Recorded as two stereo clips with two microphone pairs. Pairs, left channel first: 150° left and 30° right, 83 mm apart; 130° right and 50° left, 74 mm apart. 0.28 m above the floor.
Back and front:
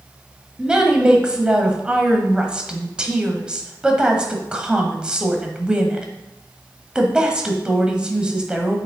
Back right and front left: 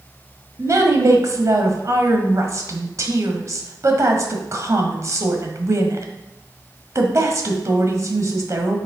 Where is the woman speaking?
50° left, 1.3 m.